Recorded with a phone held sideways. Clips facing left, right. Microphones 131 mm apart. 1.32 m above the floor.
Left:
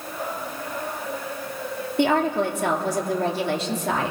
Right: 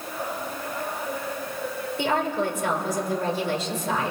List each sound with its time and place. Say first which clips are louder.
2.0 s a woman speaking: left 5 dB; 60° left (ahead or behind), 3 m